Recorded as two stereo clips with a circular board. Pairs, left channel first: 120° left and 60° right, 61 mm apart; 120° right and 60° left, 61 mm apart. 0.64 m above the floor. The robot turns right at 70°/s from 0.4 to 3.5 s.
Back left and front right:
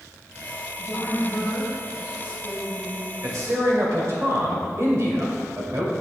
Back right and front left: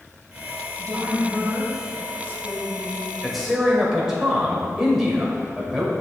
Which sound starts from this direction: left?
A woman speaking, at 0.8 s.